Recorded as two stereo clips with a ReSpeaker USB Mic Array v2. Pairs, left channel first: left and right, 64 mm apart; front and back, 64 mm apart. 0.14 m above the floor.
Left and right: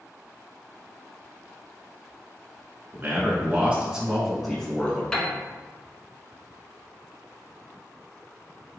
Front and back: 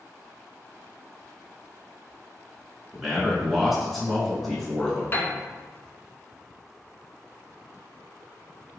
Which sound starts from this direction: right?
A man speaking, at 2.9 s.